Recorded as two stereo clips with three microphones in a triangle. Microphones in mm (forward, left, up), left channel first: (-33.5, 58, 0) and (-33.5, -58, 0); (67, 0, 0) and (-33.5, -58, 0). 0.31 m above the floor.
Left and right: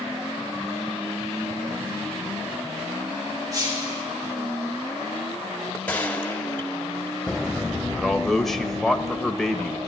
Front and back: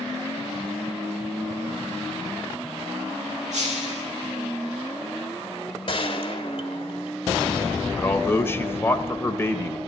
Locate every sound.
3.5 s breaking glass: 150° right, 5.5 m
5.9 s a gunshot: 20° left, 1.4 m
8.0 s a man speaking: 5° left, 0.9 m